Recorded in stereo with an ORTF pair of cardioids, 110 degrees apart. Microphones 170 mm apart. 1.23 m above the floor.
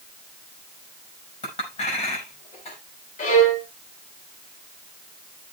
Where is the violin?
45° left, 6 m.